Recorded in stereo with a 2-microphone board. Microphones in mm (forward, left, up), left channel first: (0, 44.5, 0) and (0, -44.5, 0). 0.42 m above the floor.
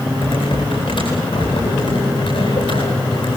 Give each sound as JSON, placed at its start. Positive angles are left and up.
{"t": 0.2, "sound": "typing on a keyboard", "side_deg": 80, "distance_m": 9.5}